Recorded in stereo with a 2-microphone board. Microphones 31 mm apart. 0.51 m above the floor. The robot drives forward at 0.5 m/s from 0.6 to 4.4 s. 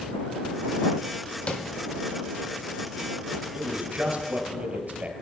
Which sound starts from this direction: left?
Tapping, at 1.5 s.